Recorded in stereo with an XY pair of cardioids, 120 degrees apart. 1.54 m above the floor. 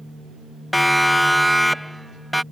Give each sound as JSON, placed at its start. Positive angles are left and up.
{"t": 0.7, "sound": "a siren", "azimuth_deg": 0}